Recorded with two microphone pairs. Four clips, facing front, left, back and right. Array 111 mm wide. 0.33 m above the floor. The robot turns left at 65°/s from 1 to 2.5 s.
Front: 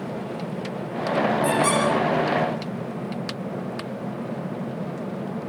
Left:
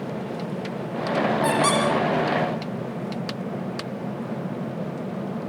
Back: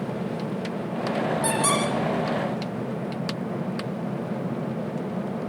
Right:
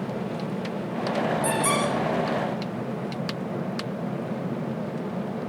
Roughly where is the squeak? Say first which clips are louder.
Left 4 dB, front 3 dB; behind left.